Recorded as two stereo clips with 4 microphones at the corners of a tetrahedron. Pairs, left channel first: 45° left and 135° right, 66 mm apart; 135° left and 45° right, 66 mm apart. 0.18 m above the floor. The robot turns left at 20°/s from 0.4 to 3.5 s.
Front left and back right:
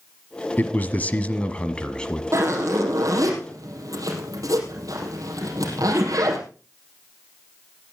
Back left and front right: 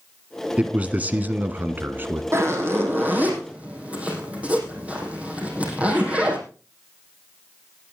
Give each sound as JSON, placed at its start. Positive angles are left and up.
{"t": 0.6, "sound": "a man speaking", "azimuth_deg": 10, "distance_m": 1.3}
{"t": 2.3, "sound": "a zipper", "azimuth_deg": -90, "distance_m": 4.0}